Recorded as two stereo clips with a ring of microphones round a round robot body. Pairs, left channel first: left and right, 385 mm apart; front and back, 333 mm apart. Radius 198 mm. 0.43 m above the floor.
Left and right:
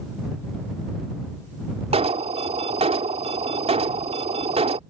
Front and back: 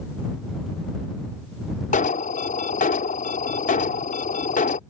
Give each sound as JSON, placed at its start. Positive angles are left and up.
{"t": 1.9, "sound": "an alarm", "azimuth_deg": -35}